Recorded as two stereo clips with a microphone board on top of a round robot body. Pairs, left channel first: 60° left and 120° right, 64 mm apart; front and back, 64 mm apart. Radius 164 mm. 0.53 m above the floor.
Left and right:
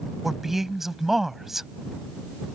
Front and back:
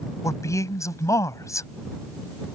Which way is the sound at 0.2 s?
35° right.